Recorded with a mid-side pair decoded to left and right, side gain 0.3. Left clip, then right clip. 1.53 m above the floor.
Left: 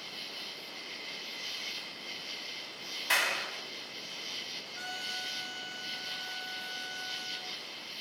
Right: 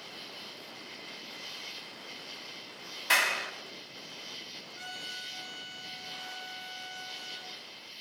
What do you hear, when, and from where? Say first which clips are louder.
0.0 s an insect: left 3 dB; 50° left, 0.8 m
3.1 s a clap: right 3 dB; 35° right, 3 m
4.8 s a trumpet: left 2 dB; 50° left, 7 m